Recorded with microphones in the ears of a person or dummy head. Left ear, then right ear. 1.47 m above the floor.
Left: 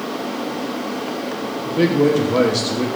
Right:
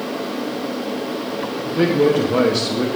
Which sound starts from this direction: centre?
A man speaking, at 1.6 s.